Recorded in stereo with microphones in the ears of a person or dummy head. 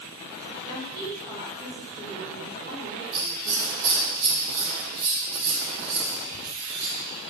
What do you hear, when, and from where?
0.6 s a woman speaking: 15° right (ahead or behind), 2.5 m; by 3.7 s 65° right (ahead or behind), 5.5 m
3.1 s scissors: 65° right (ahead or behind), 3 m